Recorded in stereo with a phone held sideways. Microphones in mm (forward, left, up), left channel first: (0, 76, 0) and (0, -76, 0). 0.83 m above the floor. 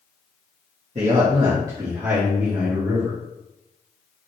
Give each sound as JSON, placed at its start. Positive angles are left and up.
{"t": 0.9, "sound": "a man speaking", "side_deg": -45, "distance_m": 1.1}